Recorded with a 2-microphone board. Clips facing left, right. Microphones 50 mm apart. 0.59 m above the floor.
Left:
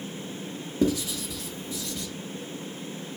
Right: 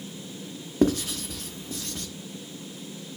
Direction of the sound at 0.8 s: 55° right (ahead or behind).